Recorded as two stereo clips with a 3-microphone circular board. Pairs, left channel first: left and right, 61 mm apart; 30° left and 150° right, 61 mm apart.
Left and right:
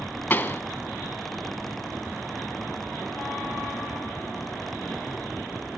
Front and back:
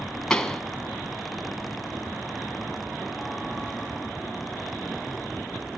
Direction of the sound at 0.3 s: 95° left.